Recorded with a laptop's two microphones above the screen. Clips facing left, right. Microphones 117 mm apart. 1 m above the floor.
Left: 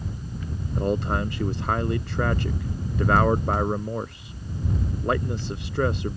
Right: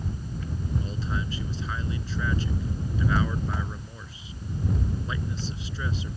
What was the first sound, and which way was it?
A man speaking, 60° left (ahead or behind).